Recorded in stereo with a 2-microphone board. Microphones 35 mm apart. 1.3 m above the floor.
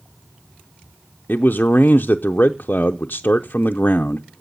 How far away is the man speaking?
About 0.6 m.